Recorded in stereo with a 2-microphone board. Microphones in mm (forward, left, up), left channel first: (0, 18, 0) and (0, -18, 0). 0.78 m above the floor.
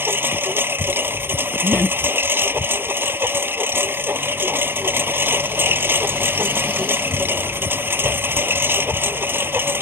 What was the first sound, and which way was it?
A lawn mower, 80° right.